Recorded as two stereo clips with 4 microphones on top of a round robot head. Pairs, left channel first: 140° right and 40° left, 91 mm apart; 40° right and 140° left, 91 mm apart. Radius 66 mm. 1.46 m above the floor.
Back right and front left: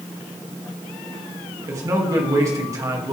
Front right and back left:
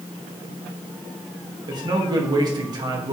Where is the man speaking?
95° left, 2.5 m.